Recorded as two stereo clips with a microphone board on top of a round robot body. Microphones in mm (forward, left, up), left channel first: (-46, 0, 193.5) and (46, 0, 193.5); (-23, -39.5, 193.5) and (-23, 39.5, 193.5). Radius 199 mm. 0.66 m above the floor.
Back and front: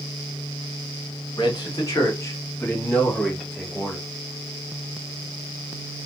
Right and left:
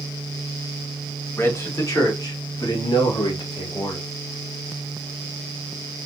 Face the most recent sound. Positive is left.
turn(degrees=-90)